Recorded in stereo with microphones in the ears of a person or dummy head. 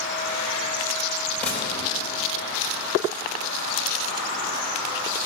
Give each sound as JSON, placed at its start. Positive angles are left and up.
{"t": 1.4, "sound": "a gunshot", "side_deg": 5, "distance_m": 3.5}